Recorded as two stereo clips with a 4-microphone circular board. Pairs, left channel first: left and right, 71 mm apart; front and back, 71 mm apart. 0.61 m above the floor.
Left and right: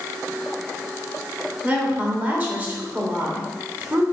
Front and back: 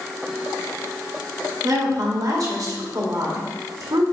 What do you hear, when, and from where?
1.6 s a woman speaking: 160° right, 2 m